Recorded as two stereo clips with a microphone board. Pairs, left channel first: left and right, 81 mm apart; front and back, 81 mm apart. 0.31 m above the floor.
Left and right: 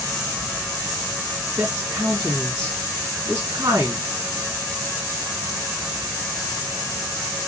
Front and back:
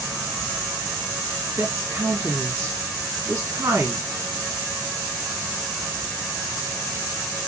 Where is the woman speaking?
125° right, 2.5 m.